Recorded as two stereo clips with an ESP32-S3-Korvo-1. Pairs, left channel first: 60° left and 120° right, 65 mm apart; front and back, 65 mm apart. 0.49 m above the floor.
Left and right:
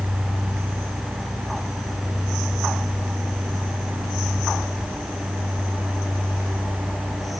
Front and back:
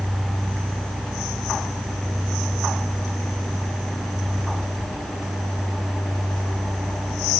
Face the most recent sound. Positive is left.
No sound to turn to.